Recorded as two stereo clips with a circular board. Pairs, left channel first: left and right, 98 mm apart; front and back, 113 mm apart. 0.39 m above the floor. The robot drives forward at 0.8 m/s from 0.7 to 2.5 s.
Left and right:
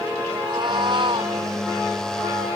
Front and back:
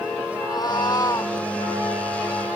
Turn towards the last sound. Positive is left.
turn(degrees=-80)